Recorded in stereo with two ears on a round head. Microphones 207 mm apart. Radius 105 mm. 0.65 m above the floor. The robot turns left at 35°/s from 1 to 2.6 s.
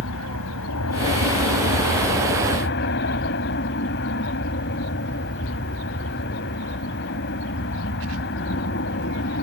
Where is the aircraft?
105° left; by 9.4 s 50° left.